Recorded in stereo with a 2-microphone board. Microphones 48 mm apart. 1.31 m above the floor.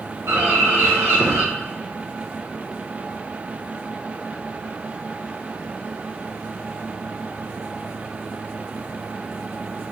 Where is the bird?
80° right, 2.5 m.